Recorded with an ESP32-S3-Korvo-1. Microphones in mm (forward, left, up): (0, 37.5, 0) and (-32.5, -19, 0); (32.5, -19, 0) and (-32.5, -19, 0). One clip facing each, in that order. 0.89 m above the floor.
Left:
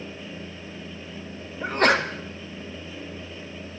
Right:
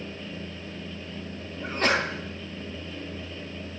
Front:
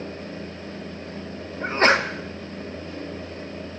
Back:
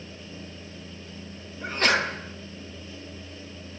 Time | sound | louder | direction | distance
1.6 | a sneeze | left 5 dB, front 5 dB | 45° left | 1.1 m